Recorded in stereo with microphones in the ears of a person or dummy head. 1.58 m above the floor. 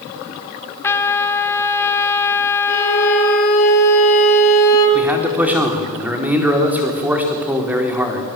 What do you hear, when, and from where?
0.8 s a trumpet: 20° left (ahead or behind), 1.4 m
2.7 s a violin: 65° left (ahead or behind), 7 m
5.0 s a man speaking: 15° right (ahead or behind), 4 m